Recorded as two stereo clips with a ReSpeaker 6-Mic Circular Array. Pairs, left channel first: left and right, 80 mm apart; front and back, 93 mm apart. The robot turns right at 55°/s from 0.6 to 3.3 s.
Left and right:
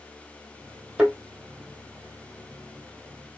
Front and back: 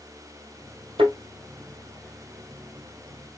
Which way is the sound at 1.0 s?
170° right.